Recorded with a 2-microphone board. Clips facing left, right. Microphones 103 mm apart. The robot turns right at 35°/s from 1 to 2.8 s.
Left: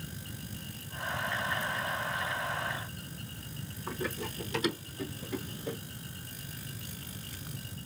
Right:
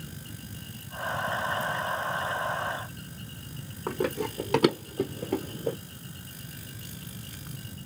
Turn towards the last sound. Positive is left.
turn(degrees=-40)  # may be behind; listen again after turning